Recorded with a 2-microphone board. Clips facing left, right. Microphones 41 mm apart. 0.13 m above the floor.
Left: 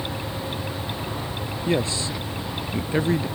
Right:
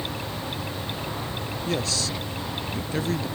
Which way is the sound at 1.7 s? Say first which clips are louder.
Left 4 dB; 25° left (ahead or behind).